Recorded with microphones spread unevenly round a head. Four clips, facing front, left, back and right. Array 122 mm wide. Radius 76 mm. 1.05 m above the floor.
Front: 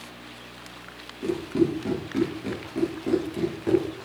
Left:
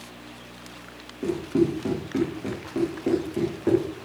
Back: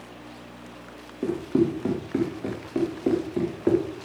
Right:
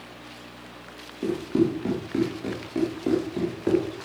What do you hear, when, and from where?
1.2 s running footsteps: 175° right, 8.5 m; by 3.9 s straight behind, 6 m